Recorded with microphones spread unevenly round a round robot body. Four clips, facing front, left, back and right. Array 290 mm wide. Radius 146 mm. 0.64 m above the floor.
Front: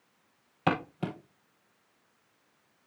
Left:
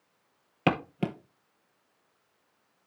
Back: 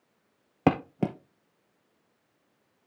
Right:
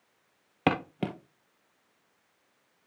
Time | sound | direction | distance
0.7 | footsteps | 175° left | 0.8 m